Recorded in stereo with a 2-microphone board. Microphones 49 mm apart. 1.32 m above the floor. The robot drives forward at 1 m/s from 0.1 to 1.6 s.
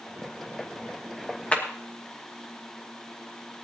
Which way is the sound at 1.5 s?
30° left (ahead or behind).